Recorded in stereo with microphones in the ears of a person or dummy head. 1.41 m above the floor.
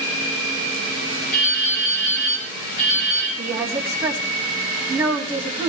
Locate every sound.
1.3 s dripping: 55° left (ahead or behind), 5.5 m
3.4 s a woman speaking: 20° right (ahead or behind), 3 m